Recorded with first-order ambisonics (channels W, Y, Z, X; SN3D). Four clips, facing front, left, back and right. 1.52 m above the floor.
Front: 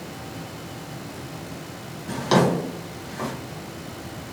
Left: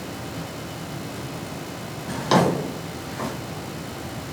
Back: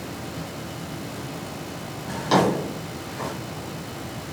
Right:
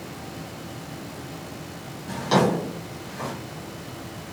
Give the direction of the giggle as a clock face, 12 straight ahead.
I don't hear a giggle.